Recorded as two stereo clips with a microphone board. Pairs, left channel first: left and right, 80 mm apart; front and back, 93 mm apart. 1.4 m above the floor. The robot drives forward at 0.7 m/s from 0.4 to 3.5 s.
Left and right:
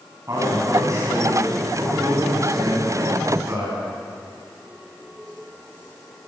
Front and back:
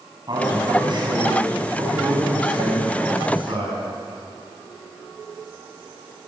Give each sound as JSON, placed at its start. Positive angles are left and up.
{"t": 0.3, "sound": "a man speaking", "azimuth_deg": -140, "distance_m": 9.0}